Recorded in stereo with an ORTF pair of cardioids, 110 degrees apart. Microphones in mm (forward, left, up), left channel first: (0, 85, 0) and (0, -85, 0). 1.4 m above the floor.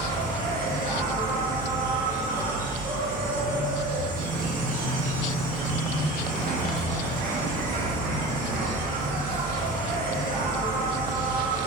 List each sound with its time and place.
0.0 s an insect: 60° right, 0.7 m